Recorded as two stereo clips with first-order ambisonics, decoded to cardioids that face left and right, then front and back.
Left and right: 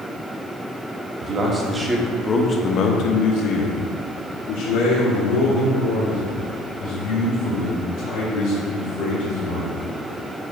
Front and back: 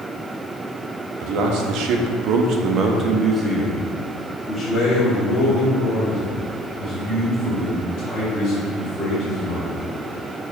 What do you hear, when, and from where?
1.2 s a man speaking: 150° right, 1.2 m; by 9.8 s 65° left, 5 m